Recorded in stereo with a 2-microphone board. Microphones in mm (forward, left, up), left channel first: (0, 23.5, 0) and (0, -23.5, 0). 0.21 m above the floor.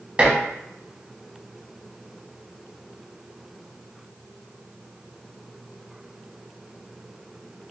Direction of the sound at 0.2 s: 25° right (ahead or behind).